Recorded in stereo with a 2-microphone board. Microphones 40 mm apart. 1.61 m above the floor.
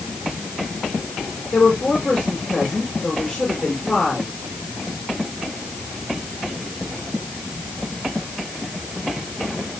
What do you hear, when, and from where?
1.5 s a woman speaking: 30° left (ahead or behind), 6 m